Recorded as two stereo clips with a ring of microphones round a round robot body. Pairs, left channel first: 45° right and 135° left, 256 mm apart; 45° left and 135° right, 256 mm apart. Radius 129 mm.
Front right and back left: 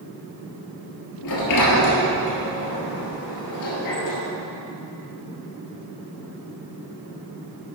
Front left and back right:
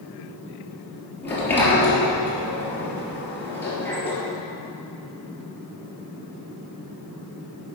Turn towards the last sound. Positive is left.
turn(degrees=-40)